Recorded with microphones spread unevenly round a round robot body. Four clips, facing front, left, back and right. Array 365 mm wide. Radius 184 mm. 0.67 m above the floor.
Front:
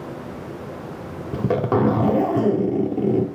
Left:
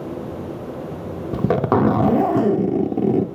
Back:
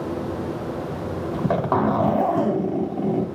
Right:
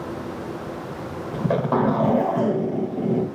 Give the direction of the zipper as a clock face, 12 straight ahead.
10 o'clock.